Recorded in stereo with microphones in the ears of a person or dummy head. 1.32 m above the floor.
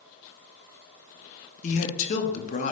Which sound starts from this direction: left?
A man speaking, at 1.6 s.